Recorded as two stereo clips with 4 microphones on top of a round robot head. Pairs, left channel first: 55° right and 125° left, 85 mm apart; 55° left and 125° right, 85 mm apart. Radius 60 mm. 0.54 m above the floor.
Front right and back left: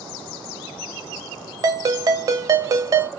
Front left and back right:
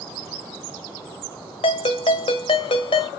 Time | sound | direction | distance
1.6 | a ringtone | 75° left | 0.9 m